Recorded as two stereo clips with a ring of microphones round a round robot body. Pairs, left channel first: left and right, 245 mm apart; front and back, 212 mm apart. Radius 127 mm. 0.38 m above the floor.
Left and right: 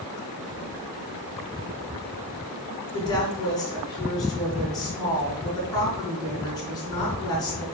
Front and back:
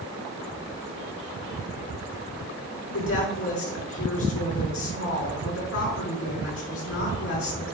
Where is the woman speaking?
15° left, 4.5 m.